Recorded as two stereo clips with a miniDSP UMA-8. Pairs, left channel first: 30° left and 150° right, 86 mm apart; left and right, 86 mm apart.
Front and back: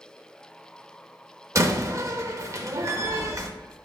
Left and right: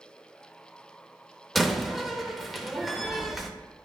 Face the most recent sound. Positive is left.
turn(degrees=180)